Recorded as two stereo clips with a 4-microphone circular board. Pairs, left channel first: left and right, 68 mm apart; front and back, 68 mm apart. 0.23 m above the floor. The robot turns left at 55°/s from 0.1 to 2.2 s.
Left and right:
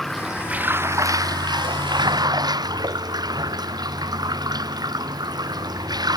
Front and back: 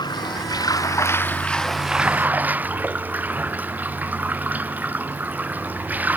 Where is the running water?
5° left; by 6.2 s 110° right.